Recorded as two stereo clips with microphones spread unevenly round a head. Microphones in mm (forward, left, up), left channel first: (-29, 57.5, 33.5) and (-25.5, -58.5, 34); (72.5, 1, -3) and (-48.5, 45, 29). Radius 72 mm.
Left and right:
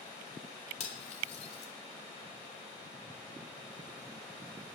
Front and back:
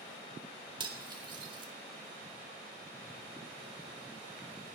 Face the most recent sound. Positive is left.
turn(degrees=115)